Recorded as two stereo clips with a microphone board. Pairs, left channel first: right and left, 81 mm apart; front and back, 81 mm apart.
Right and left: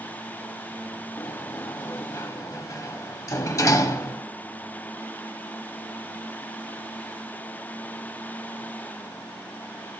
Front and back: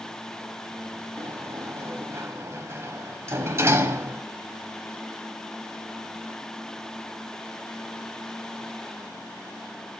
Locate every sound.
1.2 s a sliding door: 130° right, 0.9 m